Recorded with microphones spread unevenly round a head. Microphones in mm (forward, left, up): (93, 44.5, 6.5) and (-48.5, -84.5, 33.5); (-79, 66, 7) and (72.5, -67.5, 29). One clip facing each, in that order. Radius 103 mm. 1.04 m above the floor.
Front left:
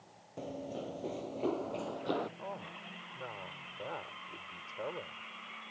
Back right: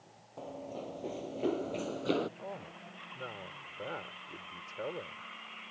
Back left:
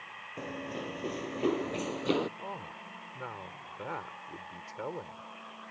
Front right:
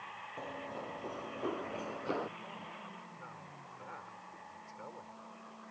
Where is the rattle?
No rattle in this recording.